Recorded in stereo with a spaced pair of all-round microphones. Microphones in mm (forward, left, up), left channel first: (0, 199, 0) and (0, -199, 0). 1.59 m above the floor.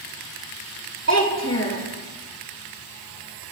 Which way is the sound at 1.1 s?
40° left (ahead or behind).